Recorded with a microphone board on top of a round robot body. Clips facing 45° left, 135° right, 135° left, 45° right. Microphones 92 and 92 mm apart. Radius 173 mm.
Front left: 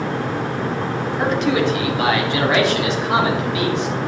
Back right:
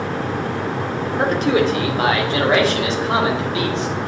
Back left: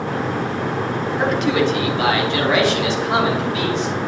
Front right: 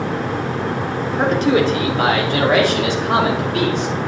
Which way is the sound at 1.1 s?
95° right.